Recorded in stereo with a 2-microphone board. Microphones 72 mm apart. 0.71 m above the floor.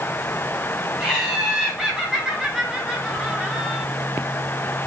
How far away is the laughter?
About 4 m.